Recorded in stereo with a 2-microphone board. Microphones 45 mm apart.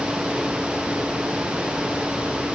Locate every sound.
Only background noise.